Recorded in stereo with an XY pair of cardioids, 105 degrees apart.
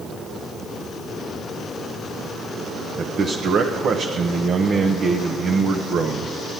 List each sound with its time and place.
3.0 s a man speaking: 55° right, 1.0 m